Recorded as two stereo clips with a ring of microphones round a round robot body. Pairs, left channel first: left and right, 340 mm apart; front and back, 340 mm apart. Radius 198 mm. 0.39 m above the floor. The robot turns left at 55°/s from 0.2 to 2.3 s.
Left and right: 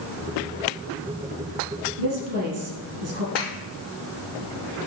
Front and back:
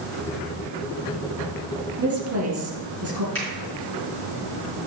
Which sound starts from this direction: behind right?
A woman speaking, at 2.0 s.